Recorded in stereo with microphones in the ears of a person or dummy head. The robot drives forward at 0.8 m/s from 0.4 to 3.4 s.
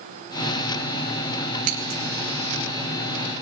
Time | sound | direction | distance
1.6 | scissors | 50° right (ahead or behind) | 1.4 m